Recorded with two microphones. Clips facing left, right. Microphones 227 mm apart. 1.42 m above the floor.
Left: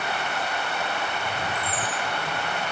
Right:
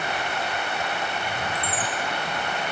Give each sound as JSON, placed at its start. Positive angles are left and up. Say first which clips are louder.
{"t": 1.6, "sound": "a chime", "louder": "right 1 dB", "side_deg": -80, "distance_m": 7.0}